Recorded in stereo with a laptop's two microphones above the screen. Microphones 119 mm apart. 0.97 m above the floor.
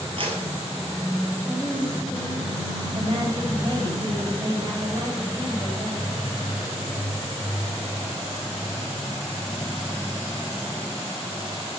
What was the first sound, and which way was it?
A clap, 50° right (ahead or behind).